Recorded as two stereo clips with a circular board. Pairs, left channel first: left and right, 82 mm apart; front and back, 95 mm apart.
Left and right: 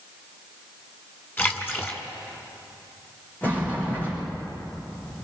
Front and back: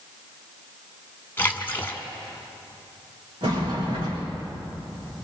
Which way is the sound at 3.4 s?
155° left.